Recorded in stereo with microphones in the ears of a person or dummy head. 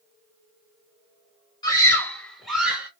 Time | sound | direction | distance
1.6 | a scream | 20° left (ahead or behind) | 1.4 m